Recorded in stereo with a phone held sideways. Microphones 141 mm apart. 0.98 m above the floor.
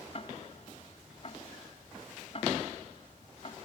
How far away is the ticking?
About 0.9 m.